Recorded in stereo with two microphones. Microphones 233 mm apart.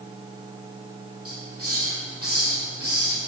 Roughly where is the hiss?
Right.